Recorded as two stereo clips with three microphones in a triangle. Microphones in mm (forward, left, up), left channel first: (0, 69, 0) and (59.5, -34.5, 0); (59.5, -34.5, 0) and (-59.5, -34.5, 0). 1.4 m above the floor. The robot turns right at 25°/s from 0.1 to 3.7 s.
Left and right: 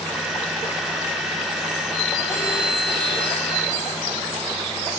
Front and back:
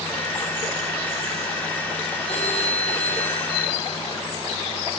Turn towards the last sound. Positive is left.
turn(degrees=5)